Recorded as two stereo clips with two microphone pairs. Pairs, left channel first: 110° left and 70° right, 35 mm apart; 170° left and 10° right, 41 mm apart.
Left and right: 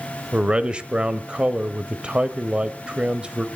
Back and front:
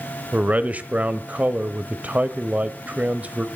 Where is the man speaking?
20° right, 1.0 m.